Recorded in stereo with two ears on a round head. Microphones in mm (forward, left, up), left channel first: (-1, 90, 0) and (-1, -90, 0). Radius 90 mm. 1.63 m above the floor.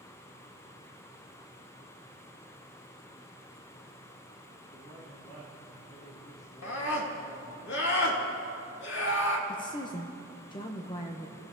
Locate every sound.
4.6 s a man speaking: 40° left (ahead or behind), 3.5 m
6.6 s a scream: 60° left (ahead or behind), 2.5 m
9.5 s a woman speaking: 25° left (ahead or behind), 0.9 m